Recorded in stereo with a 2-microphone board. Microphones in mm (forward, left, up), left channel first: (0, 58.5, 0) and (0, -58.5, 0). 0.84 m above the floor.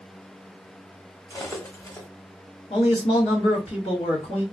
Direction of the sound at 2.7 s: 65° left (ahead or behind).